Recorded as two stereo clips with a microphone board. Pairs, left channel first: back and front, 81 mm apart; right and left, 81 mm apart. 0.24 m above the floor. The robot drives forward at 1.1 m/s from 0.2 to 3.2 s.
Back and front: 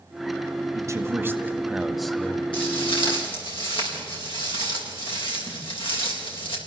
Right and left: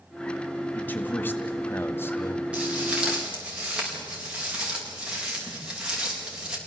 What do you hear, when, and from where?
0.8 s a man speaking: 30° right, 2 m; by 2.4 s 120° right, 1.7 m
2.5 s footsteps: 165° left, 8 m; by 6.6 s 170° left, 5.5 m